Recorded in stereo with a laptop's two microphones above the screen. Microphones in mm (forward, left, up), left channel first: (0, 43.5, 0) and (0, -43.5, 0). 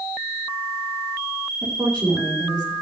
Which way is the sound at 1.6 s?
35° right (ahead or behind).